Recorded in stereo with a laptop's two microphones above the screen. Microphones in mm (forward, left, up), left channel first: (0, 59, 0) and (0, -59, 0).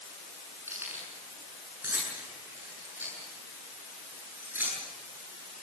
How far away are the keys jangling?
About 7.5 m.